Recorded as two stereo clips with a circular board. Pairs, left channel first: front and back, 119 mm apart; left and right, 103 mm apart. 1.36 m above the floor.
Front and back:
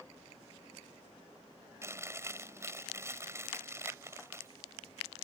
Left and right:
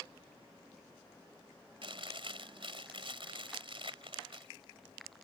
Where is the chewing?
115° right.